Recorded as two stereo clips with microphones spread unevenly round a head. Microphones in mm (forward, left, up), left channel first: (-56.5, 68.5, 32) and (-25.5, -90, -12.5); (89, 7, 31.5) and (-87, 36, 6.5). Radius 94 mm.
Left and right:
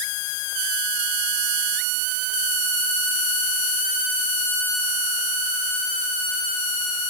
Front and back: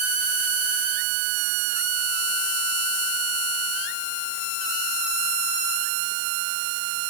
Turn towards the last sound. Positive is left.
No sound to turn to.